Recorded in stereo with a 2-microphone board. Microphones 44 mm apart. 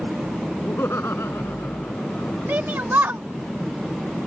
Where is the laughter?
65° left (ahead or behind); by 2.5 s 70° left (ahead or behind).